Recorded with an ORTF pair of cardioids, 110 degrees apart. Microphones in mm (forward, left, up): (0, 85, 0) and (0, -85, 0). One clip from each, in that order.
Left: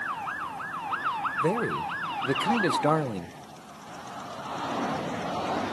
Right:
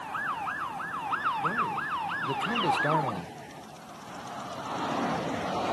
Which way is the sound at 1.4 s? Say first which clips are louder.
Left 2 dB; 60° left.